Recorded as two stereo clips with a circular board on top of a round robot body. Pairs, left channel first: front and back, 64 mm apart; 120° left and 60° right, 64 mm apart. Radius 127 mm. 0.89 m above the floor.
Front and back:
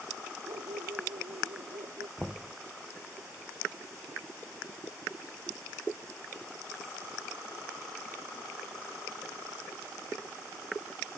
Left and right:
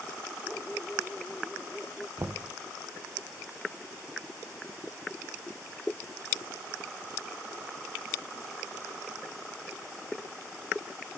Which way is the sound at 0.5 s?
155° right.